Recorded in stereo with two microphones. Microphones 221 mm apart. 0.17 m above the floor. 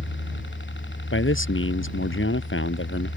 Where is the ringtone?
I don't hear a ringtone.